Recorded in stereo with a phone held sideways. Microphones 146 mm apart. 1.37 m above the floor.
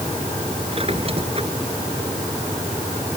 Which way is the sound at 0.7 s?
40° right (ahead or behind).